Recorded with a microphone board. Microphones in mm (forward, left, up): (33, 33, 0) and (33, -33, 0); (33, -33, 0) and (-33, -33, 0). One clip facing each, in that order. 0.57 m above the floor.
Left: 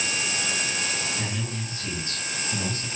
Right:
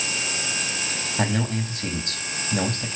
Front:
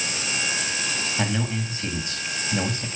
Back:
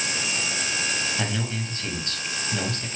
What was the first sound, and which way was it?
A man speaking, 75° right.